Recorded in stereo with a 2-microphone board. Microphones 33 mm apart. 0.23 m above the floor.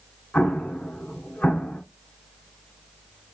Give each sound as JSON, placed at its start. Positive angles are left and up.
{"t": 0.3, "sound": "an explosion", "side_deg": 65, "distance_m": 1.2}